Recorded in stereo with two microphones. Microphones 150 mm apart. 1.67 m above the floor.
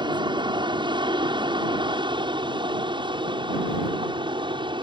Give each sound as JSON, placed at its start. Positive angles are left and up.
{"t": 0.0, "sound": "an aircraft", "side_deg": -30}